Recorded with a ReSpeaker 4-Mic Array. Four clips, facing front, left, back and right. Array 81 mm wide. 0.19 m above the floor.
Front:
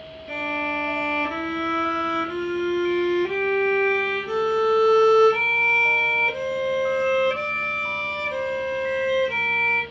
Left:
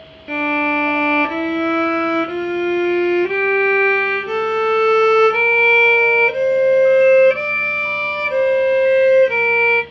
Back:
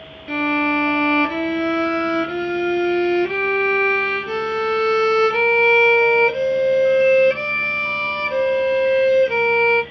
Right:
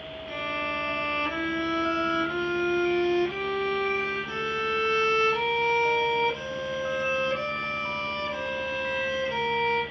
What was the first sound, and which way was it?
A violin, 115° left.